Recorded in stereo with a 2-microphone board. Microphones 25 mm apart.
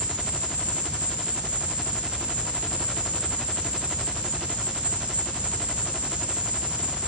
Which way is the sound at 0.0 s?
60° right (ahead or behind).